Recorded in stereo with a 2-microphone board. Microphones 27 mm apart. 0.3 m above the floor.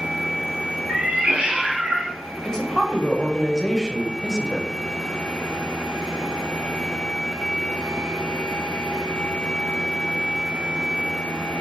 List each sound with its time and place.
0.9 s a cat meowing: 80° right, 1.7 m; by 2.1 s 75° right (ahead or behind), 1.3 m
2.5 s a woman speaking: 25° left (ahead or behind), 1.1 m